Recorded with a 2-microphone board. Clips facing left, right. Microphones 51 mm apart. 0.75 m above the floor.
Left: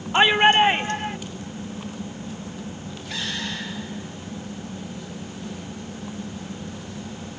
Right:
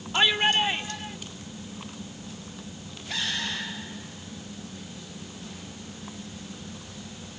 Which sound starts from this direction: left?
A shout, at 0.1 s.